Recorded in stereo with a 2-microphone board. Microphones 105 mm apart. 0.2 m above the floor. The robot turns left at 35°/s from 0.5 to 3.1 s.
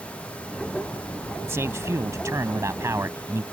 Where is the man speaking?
25° right (ahead or behind).